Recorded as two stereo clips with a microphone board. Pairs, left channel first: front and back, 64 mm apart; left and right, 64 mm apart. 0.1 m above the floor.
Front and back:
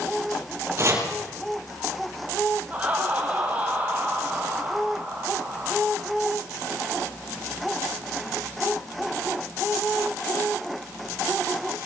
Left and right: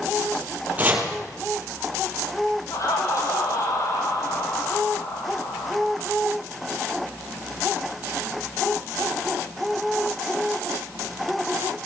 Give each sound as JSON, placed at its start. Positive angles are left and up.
{"t": 0.8, "sound": "chopping", "azimuth_deg": -150, "distance_m": 3.5}
{"t": 2.7, "sound": "laughter", "azimuth_deg": 115, "distance_m": 4.5}